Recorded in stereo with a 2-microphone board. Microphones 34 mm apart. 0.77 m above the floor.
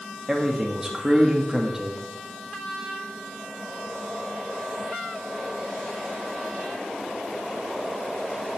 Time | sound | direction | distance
0.3 | a man speaking | 15° right (ahead or behind) | 1.4 m